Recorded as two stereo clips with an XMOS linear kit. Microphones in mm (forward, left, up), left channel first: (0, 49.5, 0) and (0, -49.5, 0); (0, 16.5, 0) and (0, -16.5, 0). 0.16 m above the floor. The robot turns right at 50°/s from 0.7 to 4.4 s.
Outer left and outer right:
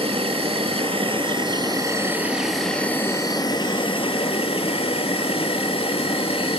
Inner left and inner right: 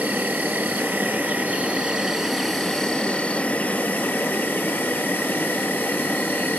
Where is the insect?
95° right, 1.2 m; by 6.6 s 90° left, 1.2 m.